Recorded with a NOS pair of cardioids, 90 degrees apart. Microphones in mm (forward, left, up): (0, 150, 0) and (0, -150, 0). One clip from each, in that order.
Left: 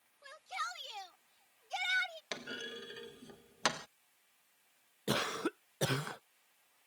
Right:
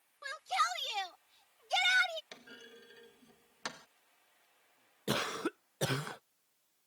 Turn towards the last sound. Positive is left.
turn(degrees=0)